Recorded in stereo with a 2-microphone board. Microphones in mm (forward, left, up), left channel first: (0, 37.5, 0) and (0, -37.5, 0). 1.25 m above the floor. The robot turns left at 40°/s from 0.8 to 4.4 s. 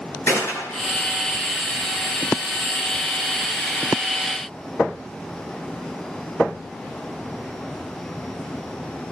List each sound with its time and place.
0.3 s a gunshot: 30° left (ahead or behind), 9.5 m; by 0.9 s 25° left (ahead or behind), 9.5 m